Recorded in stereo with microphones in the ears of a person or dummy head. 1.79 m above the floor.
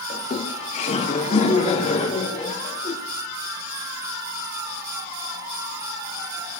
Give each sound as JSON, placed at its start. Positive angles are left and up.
{"t": 0.1, "sound": "laughter", "side_deg": 50, "distance_m": 2.5}